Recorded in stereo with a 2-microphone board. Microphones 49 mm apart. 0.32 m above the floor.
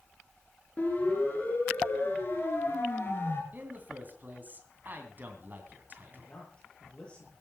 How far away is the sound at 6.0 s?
About 8 m.